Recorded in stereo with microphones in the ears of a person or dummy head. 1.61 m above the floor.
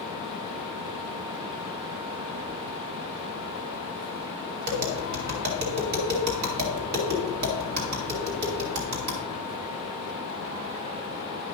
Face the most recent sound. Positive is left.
turn(degrees=-55)  # may be behind; listen again after turning